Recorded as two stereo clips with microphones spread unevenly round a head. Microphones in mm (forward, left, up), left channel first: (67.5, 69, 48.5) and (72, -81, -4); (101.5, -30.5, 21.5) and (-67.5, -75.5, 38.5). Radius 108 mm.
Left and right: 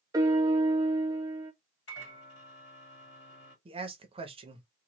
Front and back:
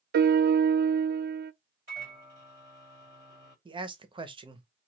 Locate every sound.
0.1 s a piano: 140° right, 0.5 m
1.9 s a microwave: 120° left, 1.7 m
3.6 s a man speaking: 105° right, 0.8 m